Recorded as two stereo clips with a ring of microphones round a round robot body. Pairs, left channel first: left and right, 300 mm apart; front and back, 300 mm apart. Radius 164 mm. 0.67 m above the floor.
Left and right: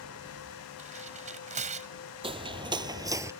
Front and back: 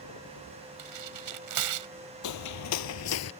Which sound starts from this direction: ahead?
Footsteps, at 2.2 s.